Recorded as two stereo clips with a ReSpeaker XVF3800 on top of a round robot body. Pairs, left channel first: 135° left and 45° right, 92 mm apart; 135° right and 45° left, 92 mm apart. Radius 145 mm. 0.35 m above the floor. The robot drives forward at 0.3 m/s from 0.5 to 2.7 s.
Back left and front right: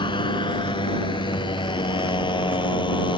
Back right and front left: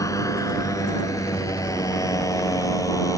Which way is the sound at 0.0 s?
170° left.